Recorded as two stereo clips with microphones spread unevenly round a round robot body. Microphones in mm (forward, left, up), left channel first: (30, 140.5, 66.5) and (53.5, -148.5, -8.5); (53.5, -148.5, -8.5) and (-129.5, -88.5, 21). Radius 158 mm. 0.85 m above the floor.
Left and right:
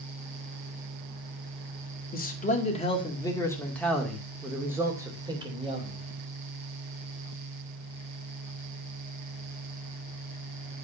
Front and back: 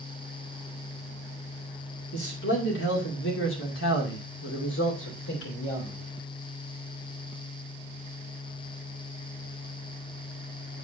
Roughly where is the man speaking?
Ahead left.